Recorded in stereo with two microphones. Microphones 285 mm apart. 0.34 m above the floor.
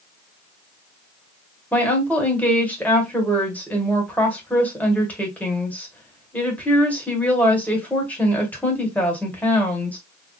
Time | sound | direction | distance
1.7 | a woman speaking | 5° left (ahead or behind) | 1.4 m